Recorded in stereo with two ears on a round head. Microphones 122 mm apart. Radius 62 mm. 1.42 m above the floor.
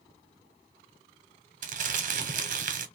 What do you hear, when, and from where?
1.6 s crumpling: 60° right (ahead or behind), 0.7 m